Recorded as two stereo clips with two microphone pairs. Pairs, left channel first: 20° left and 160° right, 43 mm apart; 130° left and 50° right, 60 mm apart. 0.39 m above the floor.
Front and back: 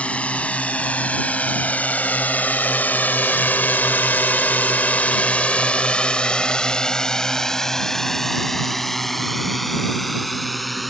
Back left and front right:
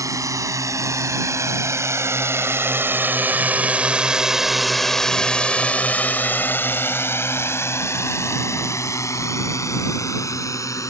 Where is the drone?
35° right; by 10.9 s 110° left.